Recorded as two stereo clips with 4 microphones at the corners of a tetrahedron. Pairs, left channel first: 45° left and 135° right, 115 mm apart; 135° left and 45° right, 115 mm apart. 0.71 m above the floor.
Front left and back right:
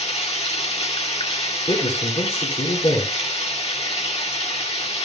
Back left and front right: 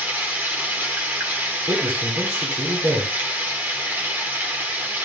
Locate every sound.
0.0 s running water: 25° left, 1.8 m
1.7 s a man speaking: straight ahead, 2.5 m